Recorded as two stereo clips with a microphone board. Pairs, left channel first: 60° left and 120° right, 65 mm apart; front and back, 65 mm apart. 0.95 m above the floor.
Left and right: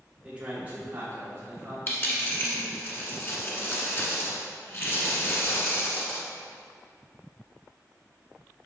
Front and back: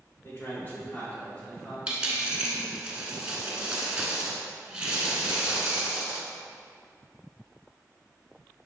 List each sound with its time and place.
0.2 s a man speaking: 50° right, 2.5 m; by 1.8 s 75° right, 3.5 m
1.9 s a dropped coin: 110° left, 1.5 m